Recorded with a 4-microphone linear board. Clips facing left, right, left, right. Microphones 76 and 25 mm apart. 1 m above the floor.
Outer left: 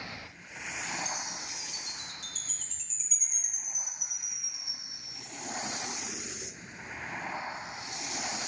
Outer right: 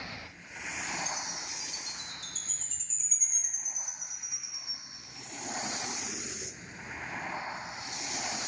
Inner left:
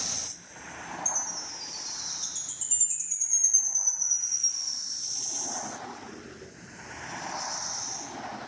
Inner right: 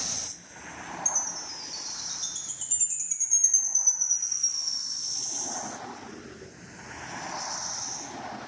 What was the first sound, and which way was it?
A chime, 35° right (ahead or behind).